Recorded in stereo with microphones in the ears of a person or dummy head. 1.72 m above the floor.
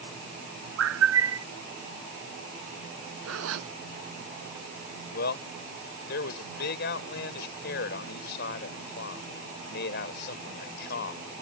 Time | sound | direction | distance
0.8 | a bird | 80° right | ?
3.2 | a zipper | 85° right | ?
5.1 | a man speaking | 60° left (ahead or behind) | ?